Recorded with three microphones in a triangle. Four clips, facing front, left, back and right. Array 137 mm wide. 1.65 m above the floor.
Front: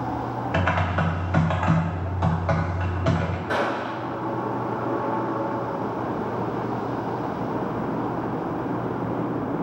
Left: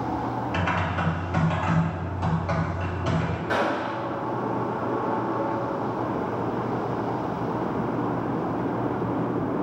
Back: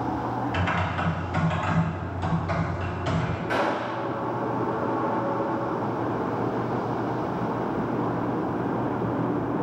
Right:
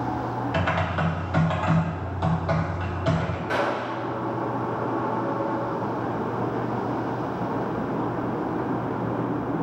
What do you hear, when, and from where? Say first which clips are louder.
0.5 s typing on a keyboard: right 3 dB, front 3 dB; 20° right, 0.6 m
3.5 s a gunshot: left 1 dB, even; 40° left, 0.8 m